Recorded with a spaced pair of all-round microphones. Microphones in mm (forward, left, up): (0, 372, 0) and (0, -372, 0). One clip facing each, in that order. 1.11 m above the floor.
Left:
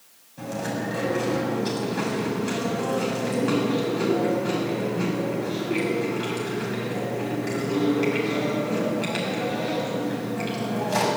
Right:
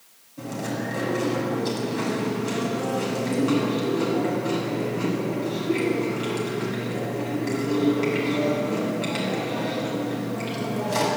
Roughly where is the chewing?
Left.